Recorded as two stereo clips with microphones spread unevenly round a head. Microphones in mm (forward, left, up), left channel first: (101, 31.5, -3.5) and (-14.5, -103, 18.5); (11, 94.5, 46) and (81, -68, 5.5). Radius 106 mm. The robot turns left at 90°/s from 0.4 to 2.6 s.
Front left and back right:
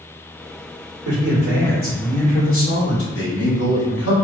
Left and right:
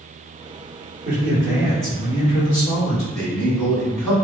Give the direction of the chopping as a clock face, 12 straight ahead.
No chopping in this recording.